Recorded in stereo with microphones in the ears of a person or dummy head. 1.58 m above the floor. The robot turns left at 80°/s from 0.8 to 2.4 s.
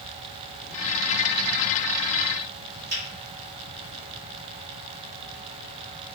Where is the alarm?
No alarm in this recording.